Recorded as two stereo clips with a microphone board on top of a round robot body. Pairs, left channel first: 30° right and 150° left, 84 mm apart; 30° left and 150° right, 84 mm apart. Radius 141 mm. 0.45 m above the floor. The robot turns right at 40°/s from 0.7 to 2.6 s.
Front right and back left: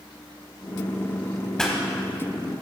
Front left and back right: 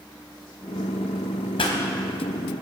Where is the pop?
50° left, 1.1 m; by 1.8 s 60° left, 1.1 m.